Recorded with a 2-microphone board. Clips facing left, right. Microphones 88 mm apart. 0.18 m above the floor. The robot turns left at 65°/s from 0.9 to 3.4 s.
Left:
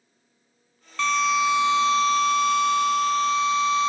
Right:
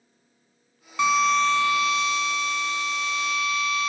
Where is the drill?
165° right, 0.6 m; by 3.9 s 40° left, 0.6 m.